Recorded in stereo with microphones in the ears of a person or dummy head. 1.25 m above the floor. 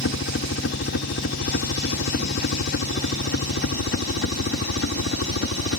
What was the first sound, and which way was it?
A helicopter, 60° left (ahead or behind).